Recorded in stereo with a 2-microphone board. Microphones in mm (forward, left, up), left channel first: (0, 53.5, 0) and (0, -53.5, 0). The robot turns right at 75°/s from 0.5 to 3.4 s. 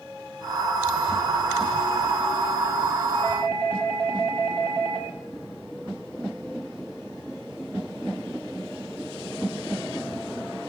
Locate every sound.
3.1 s a doorbell: 30° left (ahead or behind), 8 m; by 5.1 s 10° left (ahead or behind), 8 m